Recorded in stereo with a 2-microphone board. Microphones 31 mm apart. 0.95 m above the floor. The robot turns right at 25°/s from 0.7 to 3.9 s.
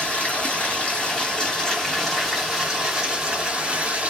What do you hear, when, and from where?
0.0 s running water: 145° left, 1.4 m; by 4.1 s 135° right, 1.4 m